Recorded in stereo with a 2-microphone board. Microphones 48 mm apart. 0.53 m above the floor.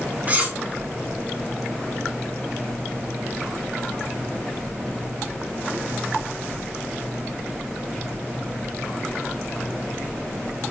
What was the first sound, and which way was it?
Cutlery clinking, 30° right (ahead or behind).